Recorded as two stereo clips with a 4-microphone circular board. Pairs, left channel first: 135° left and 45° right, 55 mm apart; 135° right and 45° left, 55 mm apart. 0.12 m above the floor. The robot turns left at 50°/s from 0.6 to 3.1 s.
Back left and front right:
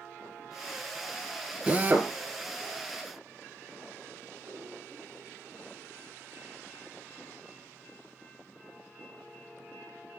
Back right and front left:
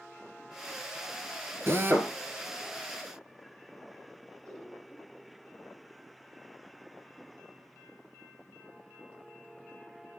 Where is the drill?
20° left, 1.8 m; by 2.1 s 5° right, 1.8 m.